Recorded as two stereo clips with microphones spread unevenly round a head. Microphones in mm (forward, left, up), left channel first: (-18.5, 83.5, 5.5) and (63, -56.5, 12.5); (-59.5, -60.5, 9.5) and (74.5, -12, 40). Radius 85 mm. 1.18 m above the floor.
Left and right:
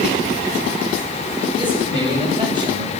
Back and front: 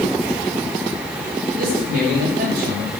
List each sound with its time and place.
1.6 s a man speaking: straight ahead, 6.5 m